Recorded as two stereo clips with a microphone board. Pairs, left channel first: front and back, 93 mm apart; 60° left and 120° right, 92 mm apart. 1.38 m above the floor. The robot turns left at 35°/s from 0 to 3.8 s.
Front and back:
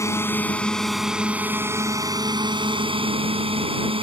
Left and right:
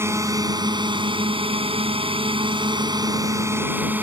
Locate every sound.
0.0 s a drone: 60° right; by 4.0 s 170° left